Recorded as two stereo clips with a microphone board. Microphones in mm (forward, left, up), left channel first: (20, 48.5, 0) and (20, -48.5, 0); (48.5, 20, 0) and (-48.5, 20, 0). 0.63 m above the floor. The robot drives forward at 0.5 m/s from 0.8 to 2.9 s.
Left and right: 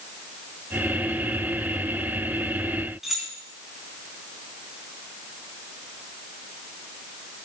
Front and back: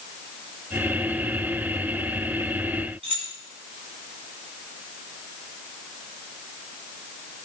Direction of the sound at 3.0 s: Straight behind.